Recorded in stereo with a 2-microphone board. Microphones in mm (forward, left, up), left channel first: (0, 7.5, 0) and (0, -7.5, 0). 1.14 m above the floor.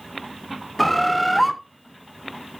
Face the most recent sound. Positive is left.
turn(degrees=5)  # may be behind; listen again after turning